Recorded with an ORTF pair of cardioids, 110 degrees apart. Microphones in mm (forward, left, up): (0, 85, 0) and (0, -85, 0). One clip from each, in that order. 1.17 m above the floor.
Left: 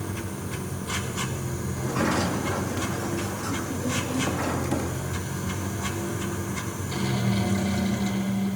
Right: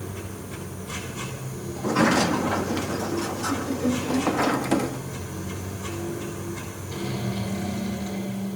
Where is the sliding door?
35° right, 1.4 m.